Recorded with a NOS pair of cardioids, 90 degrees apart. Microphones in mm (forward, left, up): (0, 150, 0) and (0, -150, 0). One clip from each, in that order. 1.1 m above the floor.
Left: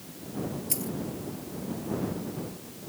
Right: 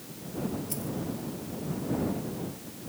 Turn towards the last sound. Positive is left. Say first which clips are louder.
# left 2 dB
turn(degrees=55)